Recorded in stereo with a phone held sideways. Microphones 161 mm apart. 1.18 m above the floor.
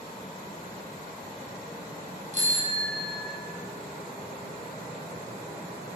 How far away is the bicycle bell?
About 4.5 m.